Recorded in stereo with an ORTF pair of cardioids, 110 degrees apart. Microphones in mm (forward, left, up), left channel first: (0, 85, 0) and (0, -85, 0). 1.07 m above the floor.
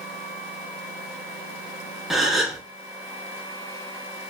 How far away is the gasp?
About 0.9 m.